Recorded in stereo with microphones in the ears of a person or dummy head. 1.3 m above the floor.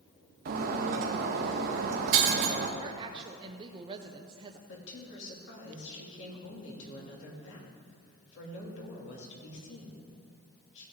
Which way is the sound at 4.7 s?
75° left (ahead or behind).